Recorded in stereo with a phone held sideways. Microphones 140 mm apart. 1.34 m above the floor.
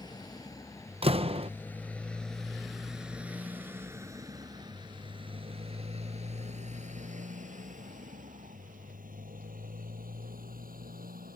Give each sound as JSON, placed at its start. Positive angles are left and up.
{"t": 0.0, "sound": "a motorcycle", "side_deg": 30}
{"t": 1.0, "sound": "a door slam", "side_deg": -40}